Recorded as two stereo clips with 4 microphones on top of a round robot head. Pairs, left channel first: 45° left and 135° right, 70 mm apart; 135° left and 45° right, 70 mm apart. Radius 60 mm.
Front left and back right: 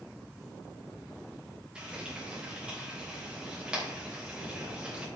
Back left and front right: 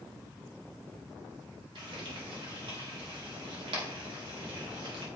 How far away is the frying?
About 3 m.